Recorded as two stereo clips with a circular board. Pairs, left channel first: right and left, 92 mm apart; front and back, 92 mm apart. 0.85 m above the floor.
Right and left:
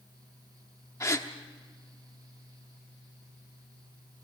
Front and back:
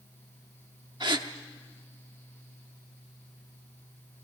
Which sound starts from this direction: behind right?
A gasp, at 1.0 s.